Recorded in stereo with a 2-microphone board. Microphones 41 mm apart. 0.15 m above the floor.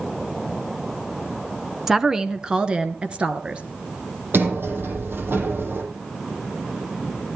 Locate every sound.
1.9 s a woman speaking: 10° right (ahead or behind), 1.2 m; by 3.6 s 30° right (ahead or behind), 2 m
4.3 s a sliding door: 60° right (ahead or behind), 4.5 m